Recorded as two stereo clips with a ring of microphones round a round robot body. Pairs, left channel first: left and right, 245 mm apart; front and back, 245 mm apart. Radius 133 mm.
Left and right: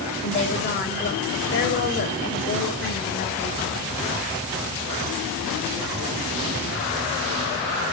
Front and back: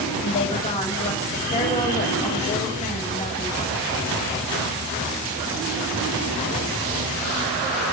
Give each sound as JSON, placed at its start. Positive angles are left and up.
{"t": 0.2, "sound": "a woman speaking", "azimuth_deg": 60, "distance_m": 2.0}